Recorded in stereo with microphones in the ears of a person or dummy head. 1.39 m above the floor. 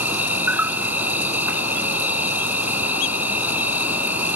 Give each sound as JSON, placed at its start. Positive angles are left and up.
{"t": 0.0, "sound": "an insect", "side_deg": -10}